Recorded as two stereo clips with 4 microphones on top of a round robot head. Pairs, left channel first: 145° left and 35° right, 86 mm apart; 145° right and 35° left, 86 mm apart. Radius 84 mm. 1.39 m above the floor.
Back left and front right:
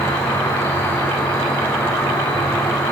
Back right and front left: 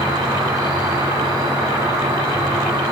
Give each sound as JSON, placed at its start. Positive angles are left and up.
{"t": 0.0, "sound": "an insect", "azimuth_deg": 75, "distance_m": 1.8}